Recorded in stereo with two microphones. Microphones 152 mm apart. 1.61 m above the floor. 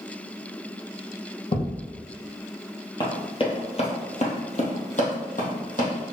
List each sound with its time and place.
1.5 s a thud: 45° left (ahead or behind), 2 m
3.0 s running footsteps: 30° left (ahead or behind), 1.9 m; by 6.1 s 60° left (ahead or behind), 3.5 m